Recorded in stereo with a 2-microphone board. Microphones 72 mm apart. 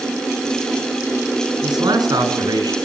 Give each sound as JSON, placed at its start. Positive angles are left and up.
{"t": 1.6, "sound": "a man speaking", "side_deg": -80, "distance_m": 6.0}